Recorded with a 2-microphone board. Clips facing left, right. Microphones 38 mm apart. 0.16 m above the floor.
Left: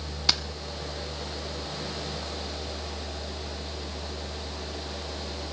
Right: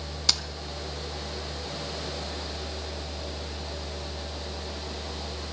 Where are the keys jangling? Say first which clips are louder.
Left 1 dB; 10° left (ahead or behind), 0.7 m.